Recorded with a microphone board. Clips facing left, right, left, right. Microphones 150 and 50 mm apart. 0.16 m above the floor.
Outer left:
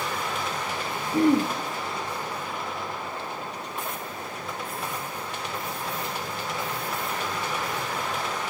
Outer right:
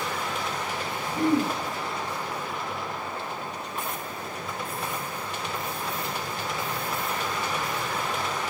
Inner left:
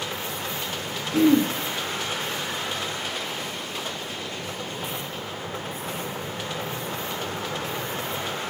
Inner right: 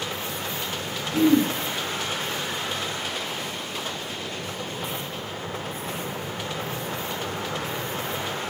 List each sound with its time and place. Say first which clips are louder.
1.1 s throat clearing: outer left 3 dB, inner left 1 dB; 70° left (ahead or behind), 2.5 m